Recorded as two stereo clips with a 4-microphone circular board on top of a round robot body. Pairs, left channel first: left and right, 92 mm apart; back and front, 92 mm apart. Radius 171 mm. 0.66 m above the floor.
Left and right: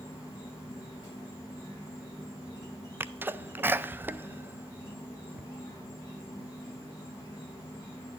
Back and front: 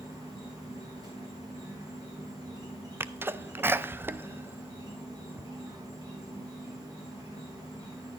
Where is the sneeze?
45° right, 0.5 m.